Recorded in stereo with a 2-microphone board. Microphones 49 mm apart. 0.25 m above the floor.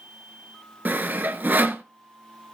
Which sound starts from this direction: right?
Sawing, at 0.8 s.